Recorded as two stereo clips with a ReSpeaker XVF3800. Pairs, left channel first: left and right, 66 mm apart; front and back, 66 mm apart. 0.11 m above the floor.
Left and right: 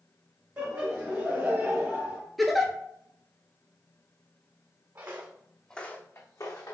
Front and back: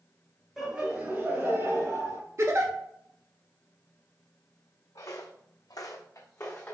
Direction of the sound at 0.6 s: 115° right.